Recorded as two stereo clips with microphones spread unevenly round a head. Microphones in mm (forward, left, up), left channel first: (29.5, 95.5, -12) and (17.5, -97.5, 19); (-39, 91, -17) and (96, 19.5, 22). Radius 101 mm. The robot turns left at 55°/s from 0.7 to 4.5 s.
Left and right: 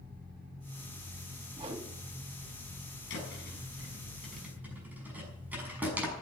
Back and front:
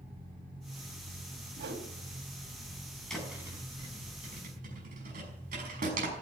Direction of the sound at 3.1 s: 65° left.